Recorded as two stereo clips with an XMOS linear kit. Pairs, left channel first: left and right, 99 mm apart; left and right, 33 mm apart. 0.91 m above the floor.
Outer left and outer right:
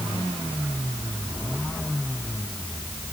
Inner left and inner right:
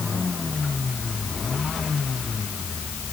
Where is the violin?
I don't hear a violin.